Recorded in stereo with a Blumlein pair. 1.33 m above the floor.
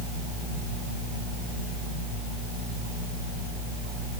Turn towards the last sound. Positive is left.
No sound to turn to.